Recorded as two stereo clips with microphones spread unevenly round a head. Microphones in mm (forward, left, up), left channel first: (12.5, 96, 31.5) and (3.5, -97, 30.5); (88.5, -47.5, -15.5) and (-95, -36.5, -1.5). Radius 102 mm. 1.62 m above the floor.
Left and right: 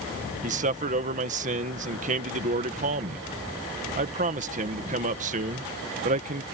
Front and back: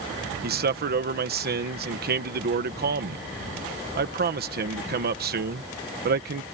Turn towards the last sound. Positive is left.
turn(degrees=-145)